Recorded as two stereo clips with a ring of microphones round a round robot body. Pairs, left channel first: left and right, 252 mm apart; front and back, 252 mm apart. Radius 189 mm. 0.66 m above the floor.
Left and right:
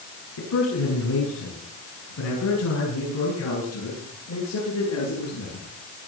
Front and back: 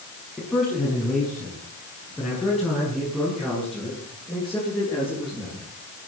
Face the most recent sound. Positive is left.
turn(degrees=90)